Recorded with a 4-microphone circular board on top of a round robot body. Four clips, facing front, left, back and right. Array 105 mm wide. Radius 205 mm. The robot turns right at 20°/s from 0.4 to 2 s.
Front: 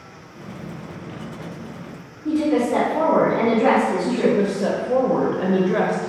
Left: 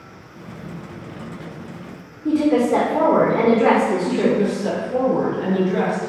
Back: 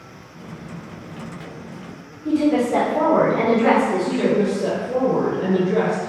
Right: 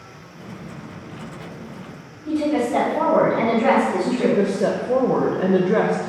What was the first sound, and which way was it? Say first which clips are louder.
A woman speaking: left 4 dB, back 1 dB; 90° left.